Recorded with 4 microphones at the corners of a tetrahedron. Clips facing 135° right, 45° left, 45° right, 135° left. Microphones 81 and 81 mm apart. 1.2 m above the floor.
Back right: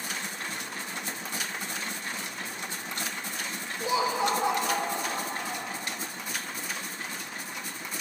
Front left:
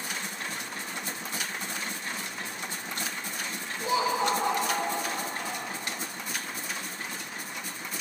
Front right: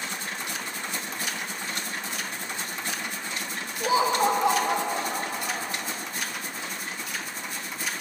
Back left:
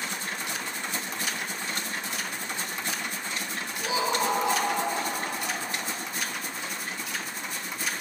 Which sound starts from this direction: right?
Laughter, at 3.8 s.